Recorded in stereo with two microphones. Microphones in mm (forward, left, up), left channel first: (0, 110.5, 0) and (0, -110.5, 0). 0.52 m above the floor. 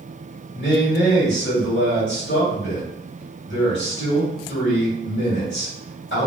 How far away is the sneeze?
I don't hear a sneeze.